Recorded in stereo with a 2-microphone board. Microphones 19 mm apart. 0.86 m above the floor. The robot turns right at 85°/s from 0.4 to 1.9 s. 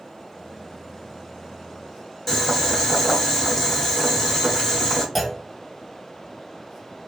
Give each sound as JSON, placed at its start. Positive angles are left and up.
{"t": 2.3, "sound": "boiling", "side_deg": 15, "distance_m": 1.2}
{"t": 5.2, "sound": "a clunk", "side_deg": 5, "distance_m": 0.7}